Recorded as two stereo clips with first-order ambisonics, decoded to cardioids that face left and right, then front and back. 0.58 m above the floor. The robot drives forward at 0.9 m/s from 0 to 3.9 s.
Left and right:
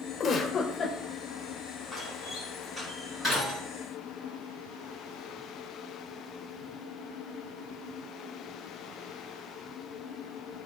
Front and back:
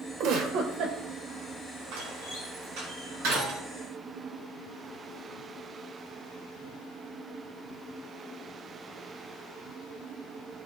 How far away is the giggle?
About 2 m.